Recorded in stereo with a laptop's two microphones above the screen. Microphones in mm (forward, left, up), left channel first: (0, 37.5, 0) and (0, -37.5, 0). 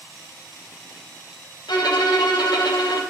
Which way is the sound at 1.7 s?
65° left (ahead or behind).